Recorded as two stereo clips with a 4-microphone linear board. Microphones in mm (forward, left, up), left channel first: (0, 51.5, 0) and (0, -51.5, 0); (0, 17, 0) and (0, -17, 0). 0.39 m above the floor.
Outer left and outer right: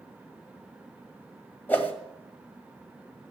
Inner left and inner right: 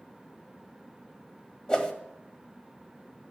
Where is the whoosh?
15° left (ahead or behind), 1.8 m.